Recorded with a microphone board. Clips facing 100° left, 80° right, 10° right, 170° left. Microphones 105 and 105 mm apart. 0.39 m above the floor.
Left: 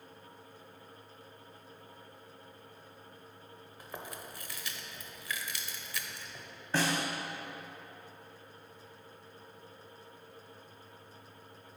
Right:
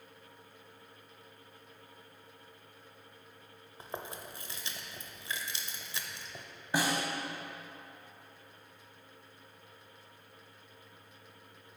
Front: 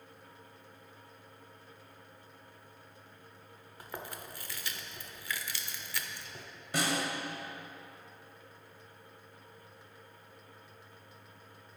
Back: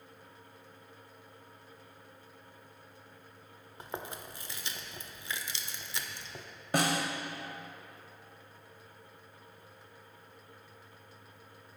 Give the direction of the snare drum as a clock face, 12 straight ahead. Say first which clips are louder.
Even, back 3 dB; 5 o'clock.